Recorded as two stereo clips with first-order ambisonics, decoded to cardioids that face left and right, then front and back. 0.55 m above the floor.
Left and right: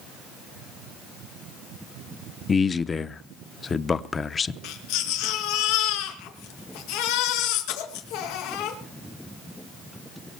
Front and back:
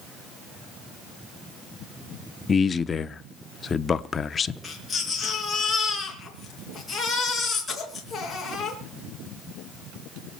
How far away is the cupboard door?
No cupboard door in this recording.